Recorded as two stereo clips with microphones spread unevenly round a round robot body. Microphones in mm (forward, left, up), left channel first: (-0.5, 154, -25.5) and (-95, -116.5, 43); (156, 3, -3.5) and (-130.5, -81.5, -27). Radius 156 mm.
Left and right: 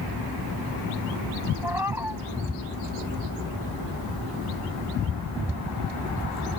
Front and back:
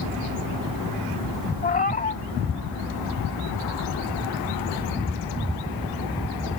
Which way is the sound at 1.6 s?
40° right.